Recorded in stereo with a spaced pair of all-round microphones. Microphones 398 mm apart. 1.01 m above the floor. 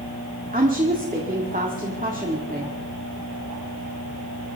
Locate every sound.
0.5 s a woman speaking: 20° right (ahead or behind), 1.9 m